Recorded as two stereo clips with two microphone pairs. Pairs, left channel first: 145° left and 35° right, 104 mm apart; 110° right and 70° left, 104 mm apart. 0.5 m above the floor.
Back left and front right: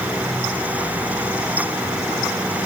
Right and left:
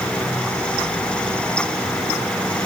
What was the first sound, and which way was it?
Only background noise.